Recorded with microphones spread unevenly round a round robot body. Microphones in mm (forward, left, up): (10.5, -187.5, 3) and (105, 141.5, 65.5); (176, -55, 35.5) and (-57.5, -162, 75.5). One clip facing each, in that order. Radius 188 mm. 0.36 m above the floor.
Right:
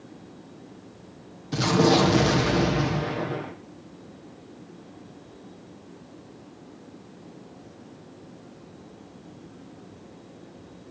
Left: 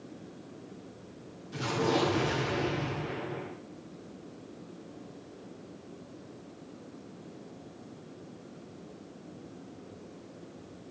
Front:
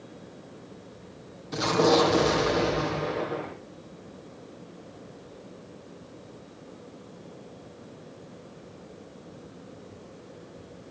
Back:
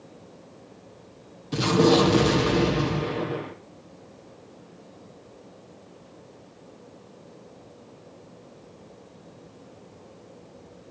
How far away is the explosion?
About 4 m.